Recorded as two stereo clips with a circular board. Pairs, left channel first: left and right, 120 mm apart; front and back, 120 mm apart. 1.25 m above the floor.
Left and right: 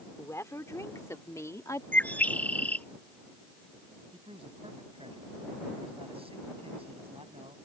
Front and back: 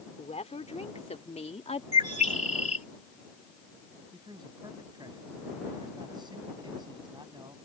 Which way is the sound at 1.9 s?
15° left.